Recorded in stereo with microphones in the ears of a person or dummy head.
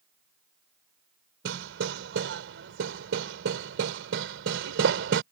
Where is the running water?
No running water in this recording.